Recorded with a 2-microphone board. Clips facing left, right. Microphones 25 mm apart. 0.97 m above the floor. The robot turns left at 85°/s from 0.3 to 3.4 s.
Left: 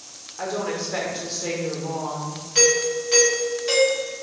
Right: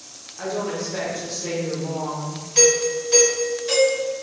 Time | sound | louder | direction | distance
0.4 | a woman speaking | even | 15° left (ahead or behind) | 0.8 m
2.5 | a doorbell | right 1 dB | 115° left | 1.5 m